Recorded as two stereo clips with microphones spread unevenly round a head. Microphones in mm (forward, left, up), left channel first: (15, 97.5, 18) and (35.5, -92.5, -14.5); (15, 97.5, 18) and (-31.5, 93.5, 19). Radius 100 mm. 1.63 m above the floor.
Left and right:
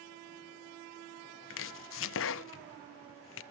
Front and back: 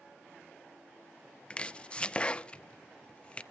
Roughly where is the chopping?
Left.